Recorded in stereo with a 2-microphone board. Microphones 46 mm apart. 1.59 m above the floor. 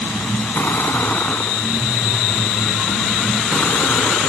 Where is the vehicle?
45° left (ahead or behind); by 4.3 s 50° left (ahead or behind).